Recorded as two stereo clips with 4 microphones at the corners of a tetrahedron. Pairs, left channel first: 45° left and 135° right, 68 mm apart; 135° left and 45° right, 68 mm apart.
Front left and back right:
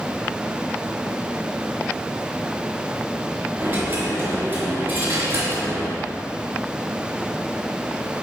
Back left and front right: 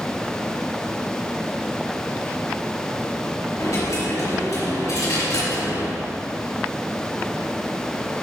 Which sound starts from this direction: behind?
A dropped coin, at 3.6 s.